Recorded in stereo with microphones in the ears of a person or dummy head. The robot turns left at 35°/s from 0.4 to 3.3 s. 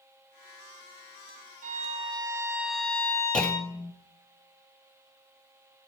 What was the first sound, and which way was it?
A violin, 140° right.